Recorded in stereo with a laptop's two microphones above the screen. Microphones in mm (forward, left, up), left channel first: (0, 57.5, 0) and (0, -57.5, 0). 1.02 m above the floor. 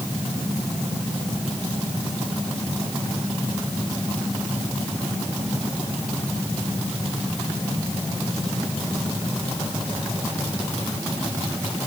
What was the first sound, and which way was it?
Only background noise.